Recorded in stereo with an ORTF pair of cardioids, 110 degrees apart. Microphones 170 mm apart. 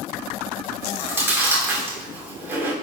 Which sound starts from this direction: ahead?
Chewing, at 0.8 s.